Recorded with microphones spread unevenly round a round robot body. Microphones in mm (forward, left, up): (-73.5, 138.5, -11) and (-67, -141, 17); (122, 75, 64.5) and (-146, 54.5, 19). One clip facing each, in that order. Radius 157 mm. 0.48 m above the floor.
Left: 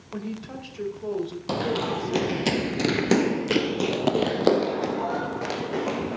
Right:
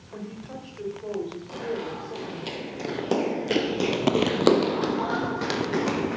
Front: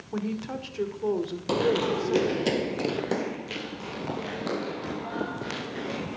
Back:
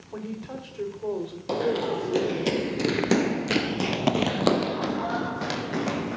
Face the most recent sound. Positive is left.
turn(degrees=-145)